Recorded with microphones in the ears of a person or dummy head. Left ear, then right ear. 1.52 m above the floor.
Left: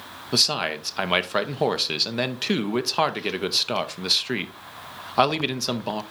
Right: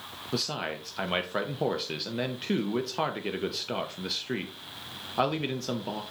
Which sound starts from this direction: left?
A man speaking, at 0.3 s.